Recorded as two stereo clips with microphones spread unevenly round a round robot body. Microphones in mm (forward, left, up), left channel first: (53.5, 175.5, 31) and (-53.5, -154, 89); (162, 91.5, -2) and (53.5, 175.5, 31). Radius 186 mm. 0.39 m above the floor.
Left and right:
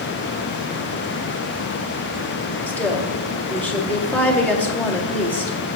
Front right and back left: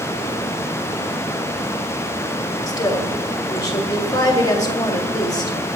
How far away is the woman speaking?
About 1.9 m.